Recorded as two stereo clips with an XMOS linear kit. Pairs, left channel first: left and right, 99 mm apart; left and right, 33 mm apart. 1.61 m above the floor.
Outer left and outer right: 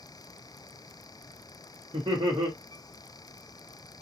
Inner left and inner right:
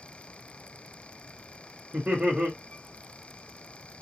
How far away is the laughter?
About 1.0 m.